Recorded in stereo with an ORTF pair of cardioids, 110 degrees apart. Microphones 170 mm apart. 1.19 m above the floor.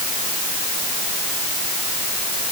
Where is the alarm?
No alarm in this recording.